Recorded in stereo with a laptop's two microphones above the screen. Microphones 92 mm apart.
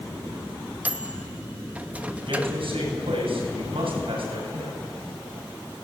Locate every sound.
0.8 s a microwave: 15° right (ahead or behind), 0.7 m
2.2 s a man speaking: 75° right (ahead or behind), 7.5 m